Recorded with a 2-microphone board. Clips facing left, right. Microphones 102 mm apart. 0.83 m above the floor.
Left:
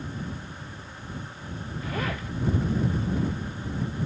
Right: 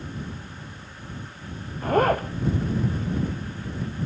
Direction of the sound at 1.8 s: 50° right (ahead or behind).